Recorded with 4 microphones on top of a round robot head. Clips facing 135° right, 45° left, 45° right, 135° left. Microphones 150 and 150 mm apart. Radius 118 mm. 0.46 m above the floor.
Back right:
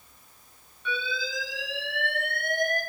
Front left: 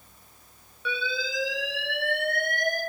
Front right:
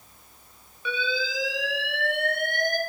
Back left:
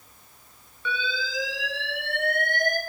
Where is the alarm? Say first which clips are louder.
Front left 1 dB, front right 2 dB; 30° left, 3.5 m.